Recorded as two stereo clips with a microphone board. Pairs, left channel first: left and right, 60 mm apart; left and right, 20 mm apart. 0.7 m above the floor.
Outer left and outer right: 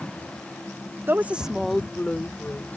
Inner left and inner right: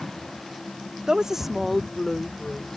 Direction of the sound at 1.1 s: 40° right (ahead or behind).